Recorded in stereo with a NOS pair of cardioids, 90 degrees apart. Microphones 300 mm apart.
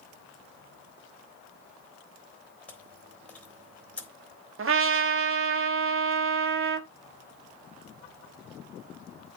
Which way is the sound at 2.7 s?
5° left.